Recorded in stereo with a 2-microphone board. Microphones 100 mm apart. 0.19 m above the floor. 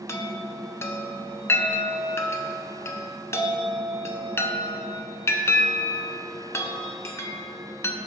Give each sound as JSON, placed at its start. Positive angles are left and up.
{"t": 0.1, "sound": "a chime", "side_deg": 25, "distance_m": 0.6}